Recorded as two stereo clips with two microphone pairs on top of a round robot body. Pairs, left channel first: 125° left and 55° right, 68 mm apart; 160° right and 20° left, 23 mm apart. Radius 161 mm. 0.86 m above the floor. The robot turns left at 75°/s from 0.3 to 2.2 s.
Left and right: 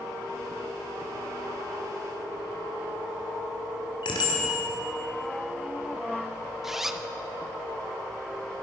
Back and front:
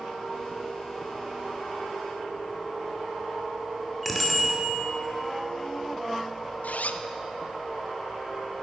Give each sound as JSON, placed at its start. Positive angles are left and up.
{"t": 4.0, "sound": "a bicycle bell", "azimuth_deg": 110, "distance_m": 2.0}
{"t": 6.6, "sound": "a zipper", "azimuth_deg": -140, "distance_m": 0.6}